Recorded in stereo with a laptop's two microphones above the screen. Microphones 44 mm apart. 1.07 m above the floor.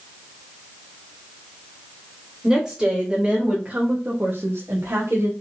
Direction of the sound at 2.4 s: 10° right (ahead or behind).